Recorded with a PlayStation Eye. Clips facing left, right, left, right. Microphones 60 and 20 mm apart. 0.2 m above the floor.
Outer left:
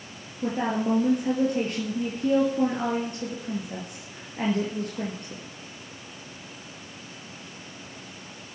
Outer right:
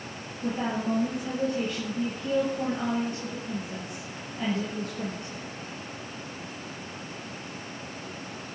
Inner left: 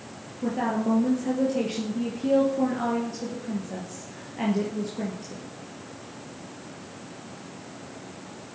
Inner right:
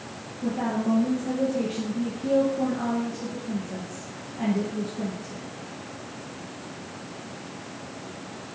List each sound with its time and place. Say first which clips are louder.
0.4 s a woman speaking: outer left 3 dB, inner left 1 dB; 55° left (ahead or behind), 3.5 m